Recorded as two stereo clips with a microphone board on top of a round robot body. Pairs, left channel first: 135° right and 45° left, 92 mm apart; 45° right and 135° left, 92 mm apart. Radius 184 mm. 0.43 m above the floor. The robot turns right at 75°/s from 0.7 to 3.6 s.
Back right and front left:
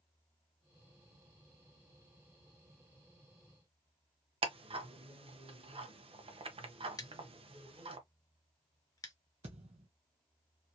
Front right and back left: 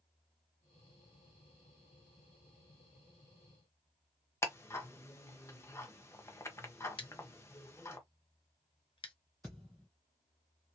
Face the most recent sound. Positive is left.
turn(degrees=30)